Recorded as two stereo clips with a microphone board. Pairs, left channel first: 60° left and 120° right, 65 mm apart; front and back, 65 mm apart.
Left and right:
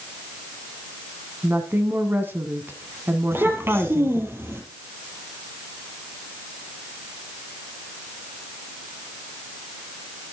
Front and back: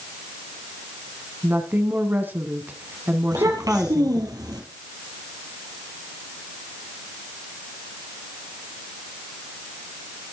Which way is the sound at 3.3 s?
170° right.